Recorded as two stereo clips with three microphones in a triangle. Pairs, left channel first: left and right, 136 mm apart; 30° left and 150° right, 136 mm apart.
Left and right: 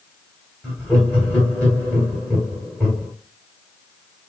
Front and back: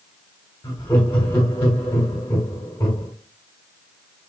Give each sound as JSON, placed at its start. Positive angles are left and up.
{"t": 0.6, "sound": "laughter", "azimuth_deg": 0, "distance_m": 1.4}